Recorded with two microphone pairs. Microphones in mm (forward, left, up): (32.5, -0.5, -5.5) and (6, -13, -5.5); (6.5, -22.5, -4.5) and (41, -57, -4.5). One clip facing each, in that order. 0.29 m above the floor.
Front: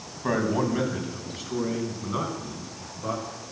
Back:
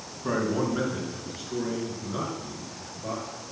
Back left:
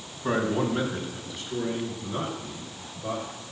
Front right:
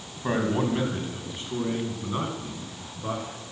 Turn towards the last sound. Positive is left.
turn(degrees=0)